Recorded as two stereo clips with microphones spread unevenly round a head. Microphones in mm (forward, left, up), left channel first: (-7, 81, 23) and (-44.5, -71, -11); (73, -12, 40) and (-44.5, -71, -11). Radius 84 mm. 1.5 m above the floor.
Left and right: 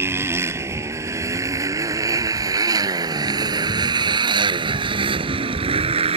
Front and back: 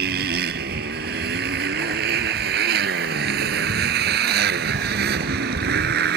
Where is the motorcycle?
Straight behind; by 6.2 s 160° right.